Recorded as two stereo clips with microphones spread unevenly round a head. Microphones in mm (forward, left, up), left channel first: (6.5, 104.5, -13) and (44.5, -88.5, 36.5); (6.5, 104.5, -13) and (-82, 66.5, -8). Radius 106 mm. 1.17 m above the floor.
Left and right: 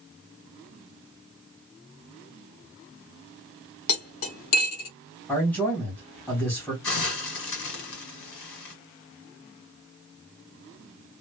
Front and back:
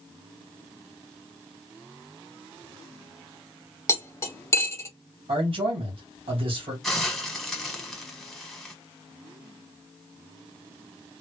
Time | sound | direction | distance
3.9 | cutlery clinking | 85° left | 1.0 m
5.3 | a man speaking | straight behind | 2.0 m
6.8 | a hiss | 115° left | 1.3 m